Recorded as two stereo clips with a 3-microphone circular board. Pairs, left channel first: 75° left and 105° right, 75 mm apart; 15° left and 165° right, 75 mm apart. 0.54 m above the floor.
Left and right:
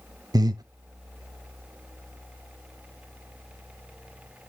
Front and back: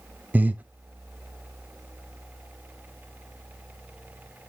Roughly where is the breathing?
Right.